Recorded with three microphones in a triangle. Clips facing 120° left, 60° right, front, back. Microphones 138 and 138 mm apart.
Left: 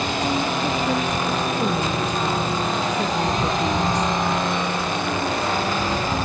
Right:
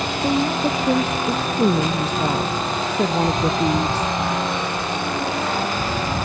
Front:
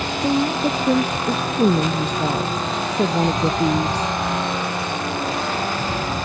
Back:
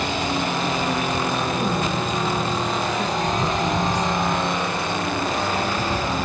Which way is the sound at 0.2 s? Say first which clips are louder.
Right 5 dB, front 9 dB; 5° right.